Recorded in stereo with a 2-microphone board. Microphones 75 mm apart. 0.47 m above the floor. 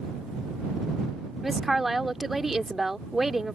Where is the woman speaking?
5° right (ahead or behind).